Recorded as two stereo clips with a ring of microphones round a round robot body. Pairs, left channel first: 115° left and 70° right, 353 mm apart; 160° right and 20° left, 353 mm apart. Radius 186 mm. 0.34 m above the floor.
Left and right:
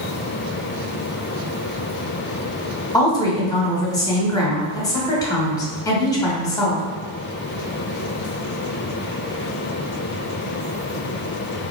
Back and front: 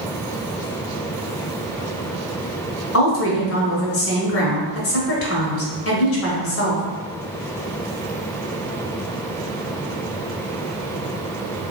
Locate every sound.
2.9 s a woman speaking: 175° right, 1.0 m